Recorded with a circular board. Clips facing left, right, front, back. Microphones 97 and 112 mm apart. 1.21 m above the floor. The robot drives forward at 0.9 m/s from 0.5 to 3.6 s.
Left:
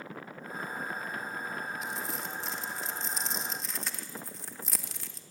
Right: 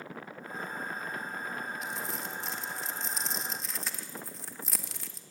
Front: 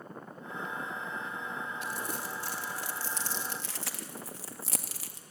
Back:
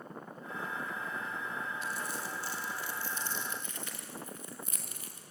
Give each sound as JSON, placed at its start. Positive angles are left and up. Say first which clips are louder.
{"t": 1.8, "sound": "crumpling", "louder": "even, front 1 dB", "azimuth_deg": 0, "distance_m": 3.5}